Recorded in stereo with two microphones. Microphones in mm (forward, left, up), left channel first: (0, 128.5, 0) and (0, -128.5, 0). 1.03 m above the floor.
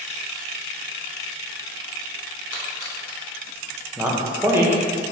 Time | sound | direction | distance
2.5 | a splash | 80° left | 0.7 m
4.0 | a man speaking | 10° right (ahead or behind) | 0.6 m